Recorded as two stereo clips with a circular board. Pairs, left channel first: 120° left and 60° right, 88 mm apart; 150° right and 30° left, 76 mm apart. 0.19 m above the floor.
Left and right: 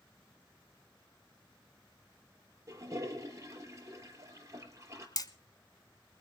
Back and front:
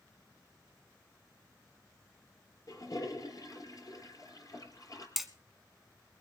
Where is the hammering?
115° left, 1.1 m.